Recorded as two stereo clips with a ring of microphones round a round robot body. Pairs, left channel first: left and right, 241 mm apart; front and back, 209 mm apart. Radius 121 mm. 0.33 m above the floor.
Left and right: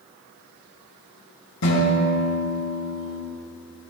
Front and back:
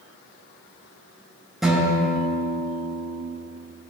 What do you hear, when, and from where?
1.6 s a guitar: 90° left, 3.5 m